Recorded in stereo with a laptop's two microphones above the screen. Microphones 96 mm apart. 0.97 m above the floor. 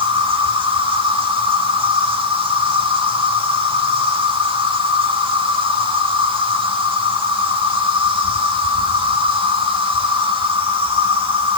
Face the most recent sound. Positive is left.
turn(degrees=-70)  # may be behind; listen again after turning